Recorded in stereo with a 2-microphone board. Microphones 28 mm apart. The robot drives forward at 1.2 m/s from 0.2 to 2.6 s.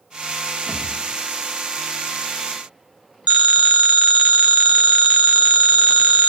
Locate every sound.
0.7 s a thud: 85° right, 7.5 m
3.3 s a phone ringing: 50° right (ahead or behind), 0.9 m